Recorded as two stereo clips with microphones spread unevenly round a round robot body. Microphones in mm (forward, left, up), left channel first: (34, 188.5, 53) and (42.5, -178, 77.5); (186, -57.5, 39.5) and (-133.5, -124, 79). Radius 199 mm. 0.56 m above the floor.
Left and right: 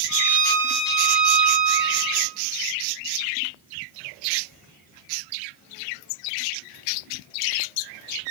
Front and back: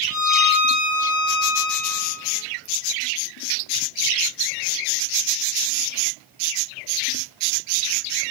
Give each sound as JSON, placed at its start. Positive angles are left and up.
{"t": 0.1, "sound": "a violin", "azimuth_deg": -40, "distance_m": 3.5}